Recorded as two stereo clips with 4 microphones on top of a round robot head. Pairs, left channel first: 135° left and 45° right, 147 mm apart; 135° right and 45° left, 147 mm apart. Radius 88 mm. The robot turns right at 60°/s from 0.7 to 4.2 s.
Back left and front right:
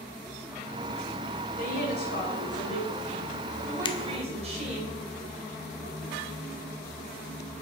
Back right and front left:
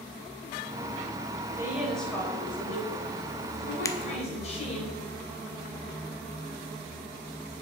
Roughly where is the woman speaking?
Left.